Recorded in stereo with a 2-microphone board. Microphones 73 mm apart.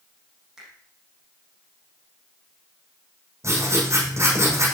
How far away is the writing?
About 9.5 m.